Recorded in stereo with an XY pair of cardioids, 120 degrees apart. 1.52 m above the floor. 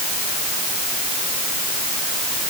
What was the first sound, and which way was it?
Only background noise.